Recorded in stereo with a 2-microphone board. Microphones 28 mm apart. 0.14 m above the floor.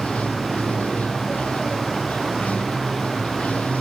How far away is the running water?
About 1.2 m.